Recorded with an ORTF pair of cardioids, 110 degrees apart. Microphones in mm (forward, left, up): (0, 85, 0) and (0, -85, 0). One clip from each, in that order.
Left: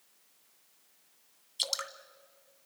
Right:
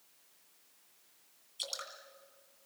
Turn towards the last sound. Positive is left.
turn(degrees=45)